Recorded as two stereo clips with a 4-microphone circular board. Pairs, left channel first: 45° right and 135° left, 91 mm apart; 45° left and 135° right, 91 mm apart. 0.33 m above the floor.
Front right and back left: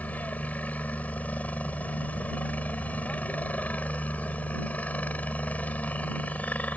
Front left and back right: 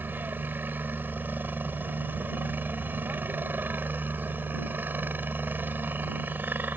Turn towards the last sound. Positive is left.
turn(degrees=-95)